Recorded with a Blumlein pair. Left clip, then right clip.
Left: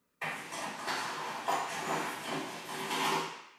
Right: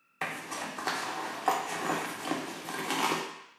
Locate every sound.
0.2 s a zipper: 40° right, 0.7 m